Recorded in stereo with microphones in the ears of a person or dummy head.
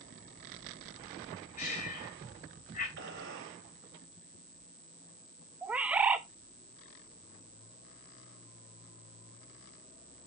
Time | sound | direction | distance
1.6 | breathing | 40° left (ahead or behind) | 3.5 m
3.0 | a gunshot | 70° right (ahead or behind) | 3.5 m
5.6 | a bird | 5° right (ahead or behind) | 0.6 m